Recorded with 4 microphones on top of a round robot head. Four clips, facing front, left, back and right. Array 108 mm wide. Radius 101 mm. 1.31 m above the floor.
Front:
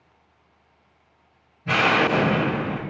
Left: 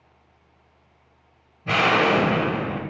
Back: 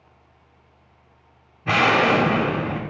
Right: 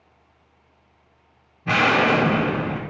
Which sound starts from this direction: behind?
An explosion, at 1.6 s.